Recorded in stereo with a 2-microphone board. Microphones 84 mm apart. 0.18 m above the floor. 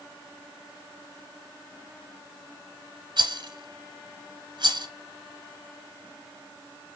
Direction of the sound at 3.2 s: 60° right (ahead or behind).